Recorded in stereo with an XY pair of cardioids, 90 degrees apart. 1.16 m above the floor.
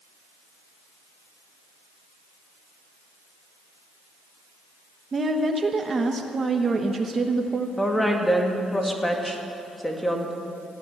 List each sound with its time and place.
5.1 s a woman speaking: 35° right, 1.1 m
7.8 s a woman speaking: 10° left, 2.0 m